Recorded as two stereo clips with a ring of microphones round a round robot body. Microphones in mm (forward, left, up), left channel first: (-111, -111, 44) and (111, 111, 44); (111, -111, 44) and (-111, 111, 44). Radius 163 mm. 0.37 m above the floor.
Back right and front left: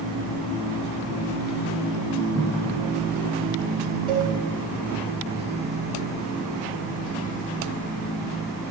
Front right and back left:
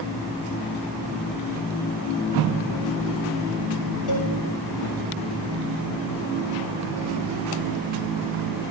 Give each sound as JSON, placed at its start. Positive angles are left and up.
{"t": 4.1, "sound": "a cowbell", "azimuth_deg": -30, "distance_m": 8.0}